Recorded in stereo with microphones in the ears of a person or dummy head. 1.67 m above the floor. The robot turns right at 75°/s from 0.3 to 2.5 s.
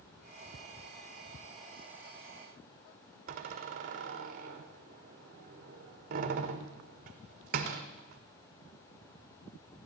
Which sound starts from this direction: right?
A door slam, at 3.3 s.